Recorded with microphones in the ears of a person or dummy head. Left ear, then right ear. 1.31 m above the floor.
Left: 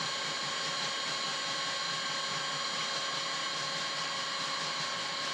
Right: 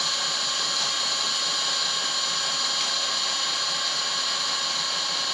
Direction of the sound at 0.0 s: 45° right (ahead or behind).